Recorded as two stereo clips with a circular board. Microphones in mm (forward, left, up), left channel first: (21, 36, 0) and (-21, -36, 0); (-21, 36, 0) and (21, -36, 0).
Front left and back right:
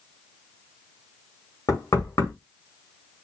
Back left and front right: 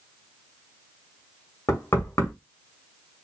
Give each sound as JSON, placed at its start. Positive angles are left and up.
{"t": 1.7, "sound": "knocking", "azimuth_deg": 80, "distance_m": 1.6}